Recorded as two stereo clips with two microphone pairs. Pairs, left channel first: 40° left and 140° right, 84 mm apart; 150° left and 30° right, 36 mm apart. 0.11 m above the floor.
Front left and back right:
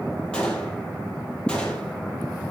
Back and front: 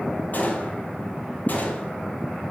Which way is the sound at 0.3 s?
120° left.